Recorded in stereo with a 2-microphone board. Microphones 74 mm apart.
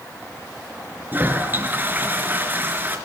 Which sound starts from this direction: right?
A toilet flushing, at 1.1 s.